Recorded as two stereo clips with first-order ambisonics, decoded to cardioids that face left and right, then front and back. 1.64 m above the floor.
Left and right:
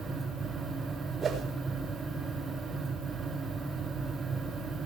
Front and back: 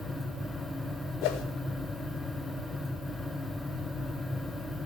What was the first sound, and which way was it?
A whoosh, 20° right.